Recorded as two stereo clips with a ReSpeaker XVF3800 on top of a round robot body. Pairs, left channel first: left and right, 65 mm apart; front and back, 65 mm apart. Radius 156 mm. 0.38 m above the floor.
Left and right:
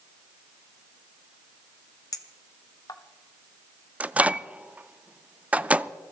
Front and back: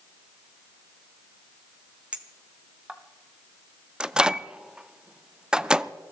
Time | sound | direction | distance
2.1 | a clink | 110° left | 1.1 m
4.0 | a microwave | 120° right | 0.7 m